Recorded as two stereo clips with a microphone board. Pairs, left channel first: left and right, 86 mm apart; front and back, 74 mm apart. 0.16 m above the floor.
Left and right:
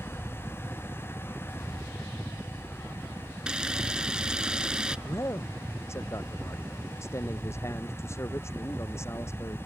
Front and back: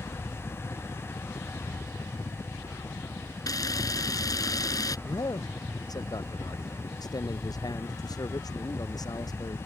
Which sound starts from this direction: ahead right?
A helicopter, at 0.0 s.